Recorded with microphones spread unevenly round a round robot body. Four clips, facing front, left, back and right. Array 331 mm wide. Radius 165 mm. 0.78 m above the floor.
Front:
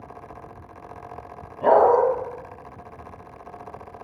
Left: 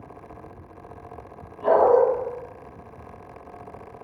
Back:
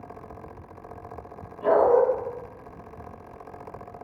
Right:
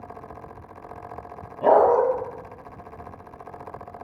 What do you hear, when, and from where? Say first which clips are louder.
1.6 s a dog barking: even, front 3 dB; 55° right, 2 m